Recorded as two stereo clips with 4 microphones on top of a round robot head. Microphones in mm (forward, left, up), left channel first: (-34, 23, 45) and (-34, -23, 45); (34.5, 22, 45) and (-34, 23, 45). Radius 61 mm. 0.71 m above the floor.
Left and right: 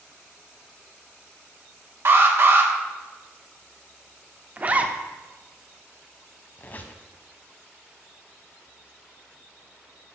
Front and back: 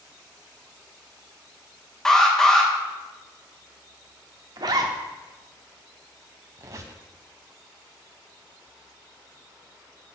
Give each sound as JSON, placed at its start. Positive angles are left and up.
{"t": 2.0, "sound": "an alarm", "azimuth_deg": -85, "distance_m": 1.5}
{"t": 4.6, "sound": "a zipper", "azimuth_deg": -150, "distance_m": 1.0}
{"t": 6.6, "sound": "a squeak", "azimuth_deg": 140, "distance_m": 0.9}